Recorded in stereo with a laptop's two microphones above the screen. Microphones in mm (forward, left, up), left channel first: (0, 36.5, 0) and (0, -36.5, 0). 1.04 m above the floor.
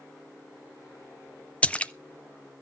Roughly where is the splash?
Centre.